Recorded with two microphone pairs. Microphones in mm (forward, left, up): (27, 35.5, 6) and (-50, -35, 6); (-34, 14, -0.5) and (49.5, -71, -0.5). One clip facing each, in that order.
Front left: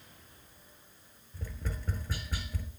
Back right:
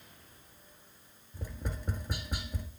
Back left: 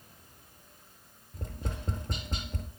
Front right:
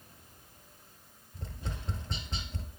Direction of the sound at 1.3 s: 155° left.